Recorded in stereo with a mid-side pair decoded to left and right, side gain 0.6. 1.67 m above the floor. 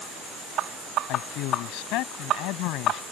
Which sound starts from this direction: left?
A man speaking, at 1.1 s.